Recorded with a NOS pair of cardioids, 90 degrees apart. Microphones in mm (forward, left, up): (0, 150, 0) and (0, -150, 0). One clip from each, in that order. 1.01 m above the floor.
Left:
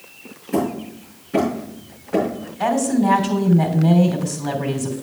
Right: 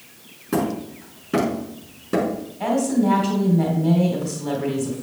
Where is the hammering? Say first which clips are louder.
Left 1 dB; 70° right, 5.5 m.